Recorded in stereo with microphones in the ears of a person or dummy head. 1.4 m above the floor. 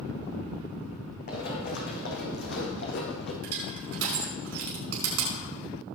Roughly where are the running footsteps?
Left.